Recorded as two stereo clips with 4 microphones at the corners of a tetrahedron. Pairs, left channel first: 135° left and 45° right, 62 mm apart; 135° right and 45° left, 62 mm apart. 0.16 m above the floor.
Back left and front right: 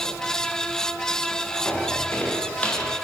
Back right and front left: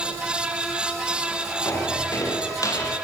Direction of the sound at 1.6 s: 165° right.